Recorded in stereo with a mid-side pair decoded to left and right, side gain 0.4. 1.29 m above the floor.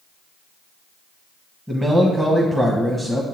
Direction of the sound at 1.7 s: 15° right.